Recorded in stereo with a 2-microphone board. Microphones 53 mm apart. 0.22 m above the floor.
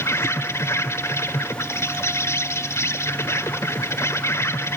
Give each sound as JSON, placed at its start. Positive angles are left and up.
{"t": 0.0, "sound": "an insect", "side_deg": 70, "distance_m": 0.8}